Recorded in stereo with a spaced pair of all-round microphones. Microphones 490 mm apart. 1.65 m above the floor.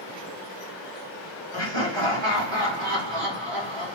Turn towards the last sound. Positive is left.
turn(degrees=-60)  # may be behind; listen again after turning